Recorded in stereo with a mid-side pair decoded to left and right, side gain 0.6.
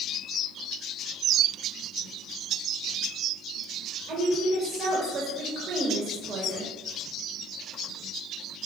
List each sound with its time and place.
4.1 s a woman speaking: 45° right, 1.6 m